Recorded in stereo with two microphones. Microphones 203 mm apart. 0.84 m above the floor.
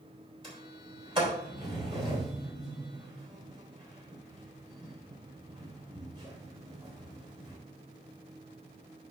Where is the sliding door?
25° right (ahead or behind), 3.5 m.